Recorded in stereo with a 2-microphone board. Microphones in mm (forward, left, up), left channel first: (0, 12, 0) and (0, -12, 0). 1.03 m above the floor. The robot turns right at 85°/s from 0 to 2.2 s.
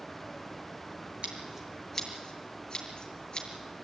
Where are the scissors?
55° right (ahead or behind), 6.5 m; by 3.5 s 25° left (ahead or behind), 6.5 m.